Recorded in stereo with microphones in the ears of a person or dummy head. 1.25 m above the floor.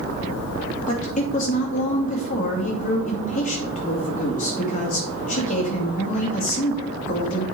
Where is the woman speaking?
35° left (ahead or behind), 2.5 m.